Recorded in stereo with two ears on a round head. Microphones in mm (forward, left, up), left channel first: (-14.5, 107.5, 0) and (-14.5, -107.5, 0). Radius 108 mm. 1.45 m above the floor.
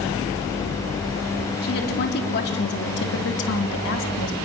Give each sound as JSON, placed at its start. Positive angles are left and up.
{"t": 1.6, "sound": "a woman speaking", "side_deg": 40, "distance_m": 3.5}